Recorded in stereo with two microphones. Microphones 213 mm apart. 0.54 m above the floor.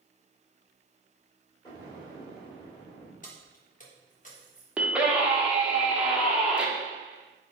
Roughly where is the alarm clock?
I don't hear an alarm clock.